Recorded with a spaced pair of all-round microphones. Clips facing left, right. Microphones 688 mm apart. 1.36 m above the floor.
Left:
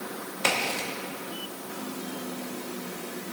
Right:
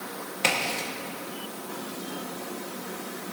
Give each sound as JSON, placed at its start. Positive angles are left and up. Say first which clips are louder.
{"t": 0.4, "sound": "a crack", "louder": "even", "side_deg": -55, "distance_m": 2.0}